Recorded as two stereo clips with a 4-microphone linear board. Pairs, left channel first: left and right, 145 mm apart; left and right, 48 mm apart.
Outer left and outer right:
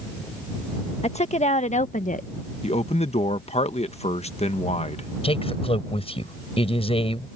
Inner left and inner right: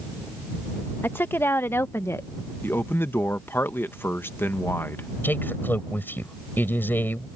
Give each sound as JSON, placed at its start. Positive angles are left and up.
{"t": 1.0, "sound": "a woman speaking", "side_deg": 45}
{"t": 2.6, "sound": "a man speaking", "side_deg": 45}
{"t": 5.2, "sound": "a man speaking", "side_deg": 40}